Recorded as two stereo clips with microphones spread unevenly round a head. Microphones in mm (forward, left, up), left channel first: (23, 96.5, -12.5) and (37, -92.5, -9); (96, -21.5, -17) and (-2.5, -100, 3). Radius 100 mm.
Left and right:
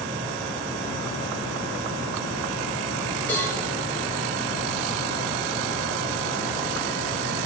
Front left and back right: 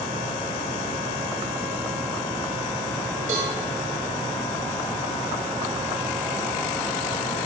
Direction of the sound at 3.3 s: 175° left.